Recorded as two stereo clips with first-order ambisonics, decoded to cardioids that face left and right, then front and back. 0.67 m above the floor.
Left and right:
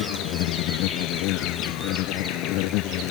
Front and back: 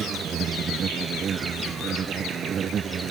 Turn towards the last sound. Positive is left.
turn(degrees=120)